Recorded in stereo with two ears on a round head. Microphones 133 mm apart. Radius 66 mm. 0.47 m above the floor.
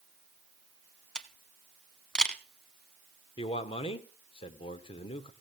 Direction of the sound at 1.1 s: 5° left (ahead or behind).